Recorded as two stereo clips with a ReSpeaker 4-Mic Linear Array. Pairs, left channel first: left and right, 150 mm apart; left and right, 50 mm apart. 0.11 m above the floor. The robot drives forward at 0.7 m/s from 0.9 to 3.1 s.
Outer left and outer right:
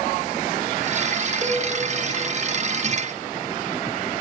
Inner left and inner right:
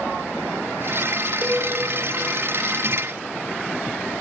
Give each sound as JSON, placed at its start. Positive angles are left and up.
{"t": 1.4, "sound": "a cowbell", "side_deg": -25, "distance_m": 5.5}